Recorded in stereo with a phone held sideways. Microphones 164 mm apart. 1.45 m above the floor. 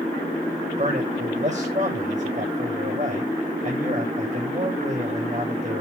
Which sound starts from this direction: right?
A man speaking, at 0.8 s.